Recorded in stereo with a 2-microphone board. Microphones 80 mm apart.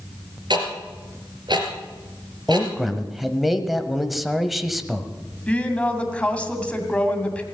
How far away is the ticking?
About 3 m.